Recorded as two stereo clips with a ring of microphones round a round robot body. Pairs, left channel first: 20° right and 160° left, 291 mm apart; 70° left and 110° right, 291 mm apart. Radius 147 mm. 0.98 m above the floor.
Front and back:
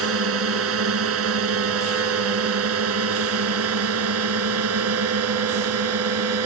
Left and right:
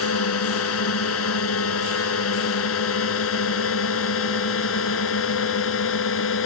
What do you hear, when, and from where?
0.0 s a drone: 110° left; by 6.5 s 115° left